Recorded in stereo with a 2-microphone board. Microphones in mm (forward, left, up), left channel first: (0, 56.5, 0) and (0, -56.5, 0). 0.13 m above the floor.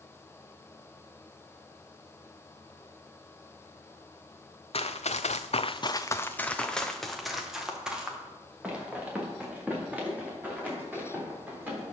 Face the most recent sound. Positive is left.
turn(degrees=-15)  # may be behind; listen again after turning